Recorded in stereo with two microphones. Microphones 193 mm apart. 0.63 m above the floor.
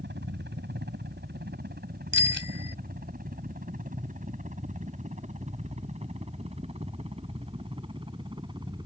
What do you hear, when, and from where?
0.0 s a helicopter: 65° right (ahead or behind); by 8.9 s 20° right (ahead or behind)
2.1 s a bicycle bell: 80° right